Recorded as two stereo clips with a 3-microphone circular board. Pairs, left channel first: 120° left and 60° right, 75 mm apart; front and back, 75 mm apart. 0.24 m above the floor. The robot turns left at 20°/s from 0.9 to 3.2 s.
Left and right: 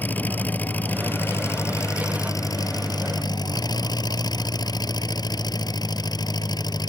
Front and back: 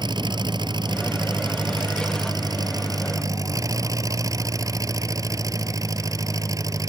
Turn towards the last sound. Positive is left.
turn(degrees=140)